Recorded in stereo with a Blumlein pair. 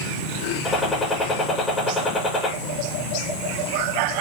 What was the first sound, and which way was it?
A gunshot, 15° left.